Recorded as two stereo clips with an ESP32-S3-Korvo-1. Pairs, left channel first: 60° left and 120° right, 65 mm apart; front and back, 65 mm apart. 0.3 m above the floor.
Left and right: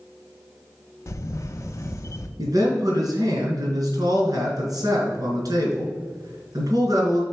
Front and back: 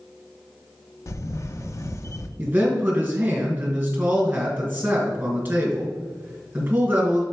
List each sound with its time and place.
1.1 s a camera shutter: 30° left, 0.5 m
2.4 s a man speaking: 120° right, 2.5 m